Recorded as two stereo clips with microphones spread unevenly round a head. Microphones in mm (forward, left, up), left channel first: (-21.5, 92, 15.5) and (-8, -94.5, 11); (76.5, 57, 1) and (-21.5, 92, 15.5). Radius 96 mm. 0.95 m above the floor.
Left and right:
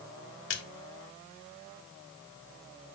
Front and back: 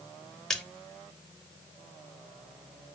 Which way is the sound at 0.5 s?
65° left.